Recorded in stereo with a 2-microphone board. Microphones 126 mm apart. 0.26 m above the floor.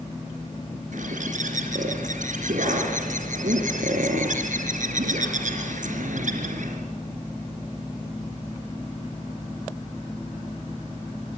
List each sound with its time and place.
0.9 s a bird: 75° right (ahead or behind), 3.5 m